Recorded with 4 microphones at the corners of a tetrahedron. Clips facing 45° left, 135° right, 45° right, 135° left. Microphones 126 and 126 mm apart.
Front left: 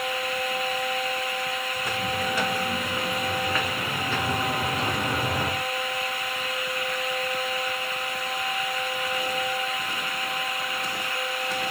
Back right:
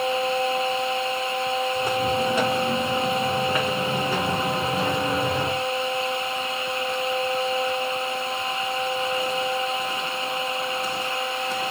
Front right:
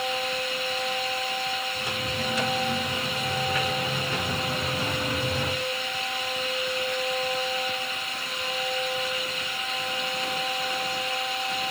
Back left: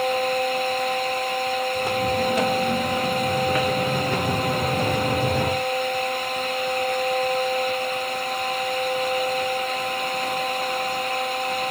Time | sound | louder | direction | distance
1.8 | footsteps | back right 5 dB, back left 9 dB | 165° left | 3 m